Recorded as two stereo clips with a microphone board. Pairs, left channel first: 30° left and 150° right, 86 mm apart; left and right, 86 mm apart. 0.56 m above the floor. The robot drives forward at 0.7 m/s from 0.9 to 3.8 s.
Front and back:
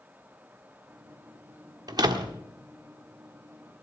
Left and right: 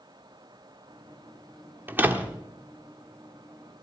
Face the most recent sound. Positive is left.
turn(degrees=-170)